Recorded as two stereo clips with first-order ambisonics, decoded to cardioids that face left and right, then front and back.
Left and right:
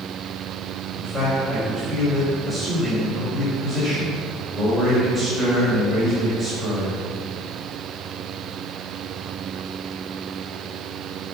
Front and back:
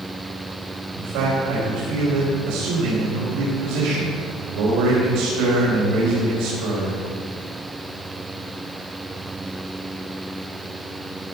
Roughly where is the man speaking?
Behind.